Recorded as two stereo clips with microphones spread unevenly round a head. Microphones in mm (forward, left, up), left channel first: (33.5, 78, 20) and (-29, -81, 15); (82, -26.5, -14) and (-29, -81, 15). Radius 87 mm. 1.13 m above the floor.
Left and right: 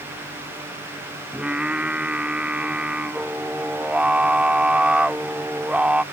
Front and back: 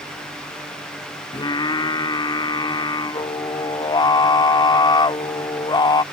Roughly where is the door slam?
No door slam in this recording.